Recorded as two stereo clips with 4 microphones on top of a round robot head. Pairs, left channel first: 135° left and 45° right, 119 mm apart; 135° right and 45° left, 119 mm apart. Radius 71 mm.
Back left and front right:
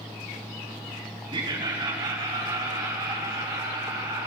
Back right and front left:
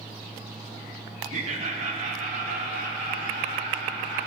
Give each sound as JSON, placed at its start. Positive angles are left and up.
{"t": 1.3, "sound": "laughter", "azimuth_deg": 10, "distance_m": 2.0}